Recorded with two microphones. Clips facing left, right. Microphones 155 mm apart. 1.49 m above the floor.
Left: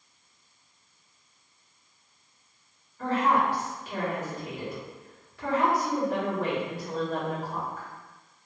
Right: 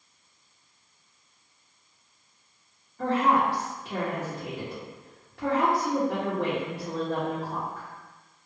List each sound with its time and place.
3.0 s a woman speaking: 65° right (ahead or behind), 1.3 m